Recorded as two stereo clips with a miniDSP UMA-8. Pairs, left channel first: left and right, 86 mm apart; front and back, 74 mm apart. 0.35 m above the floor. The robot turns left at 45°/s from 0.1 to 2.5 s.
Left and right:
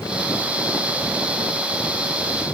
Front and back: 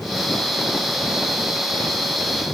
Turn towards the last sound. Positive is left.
No sound to turn to.